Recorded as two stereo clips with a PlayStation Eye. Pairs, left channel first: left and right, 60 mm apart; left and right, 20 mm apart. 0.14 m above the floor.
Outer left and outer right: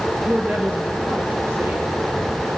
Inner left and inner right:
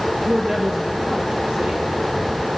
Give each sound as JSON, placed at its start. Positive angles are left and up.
{"t": 0.3, "sound": "a woman speaking", "side_deg": -35, "distance_m": 3.0}